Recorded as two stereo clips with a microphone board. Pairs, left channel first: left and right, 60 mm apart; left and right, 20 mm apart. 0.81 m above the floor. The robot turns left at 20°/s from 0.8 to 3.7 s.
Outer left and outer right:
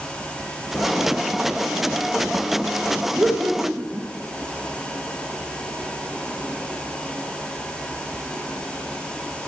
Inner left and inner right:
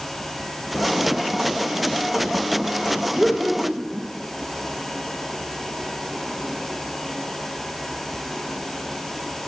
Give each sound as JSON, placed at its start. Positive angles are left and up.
{"t": 3.2, "sound": "laughter", "side_deg": -20, "distance_m": 0.9}